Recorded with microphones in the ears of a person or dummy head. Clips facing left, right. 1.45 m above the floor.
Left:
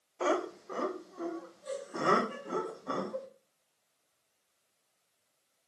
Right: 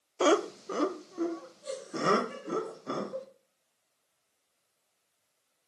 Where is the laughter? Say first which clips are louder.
Right 6 dB; 55° right (ahead or behind), 0.5 m; by 3.2 s 30° right (ahead or behind), 3 m.